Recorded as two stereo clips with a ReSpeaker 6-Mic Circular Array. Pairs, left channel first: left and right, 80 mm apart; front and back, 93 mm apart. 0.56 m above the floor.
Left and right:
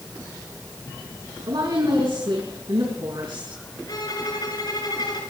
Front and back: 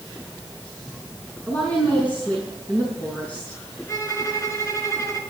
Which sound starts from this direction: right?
A woman speaking, at 1.5 s.